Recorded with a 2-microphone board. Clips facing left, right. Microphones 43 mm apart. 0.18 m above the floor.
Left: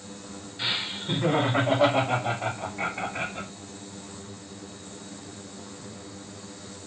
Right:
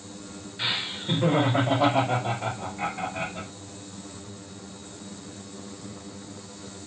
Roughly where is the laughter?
Centre.